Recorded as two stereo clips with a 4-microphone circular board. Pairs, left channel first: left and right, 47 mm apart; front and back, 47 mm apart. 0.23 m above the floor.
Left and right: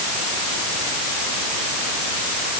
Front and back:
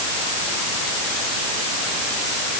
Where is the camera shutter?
I don't hear a camera shutter.